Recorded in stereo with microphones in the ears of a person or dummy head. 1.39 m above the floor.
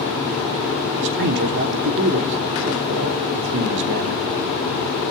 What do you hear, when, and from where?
1.0 s a man speaking: 60° right (ahead or behind), 3 m